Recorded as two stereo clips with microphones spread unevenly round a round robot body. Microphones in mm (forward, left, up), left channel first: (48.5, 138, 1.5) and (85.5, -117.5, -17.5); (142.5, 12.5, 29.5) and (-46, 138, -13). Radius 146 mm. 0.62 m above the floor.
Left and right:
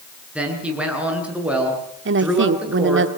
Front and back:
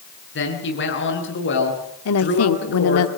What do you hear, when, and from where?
0.3 s a man speaking: 5° left, 9 m
2.0 s a woman speaking: 55° right, 1.8 m